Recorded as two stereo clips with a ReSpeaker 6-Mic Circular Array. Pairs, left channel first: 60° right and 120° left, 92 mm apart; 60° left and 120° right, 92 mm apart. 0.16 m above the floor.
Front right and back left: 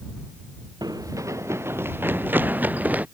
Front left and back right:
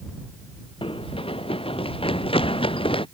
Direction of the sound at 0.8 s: 75° left.